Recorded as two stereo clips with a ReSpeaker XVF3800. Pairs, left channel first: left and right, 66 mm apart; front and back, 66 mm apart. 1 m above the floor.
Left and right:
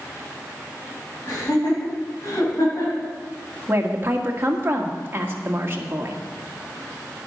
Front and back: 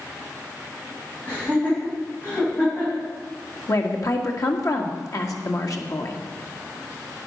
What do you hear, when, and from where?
1.3 s laughter: 70° left, 6.5 m; by 3.1 s 60° left, 6 m
3.7 s a woman speaking: 35° right, 1.7 m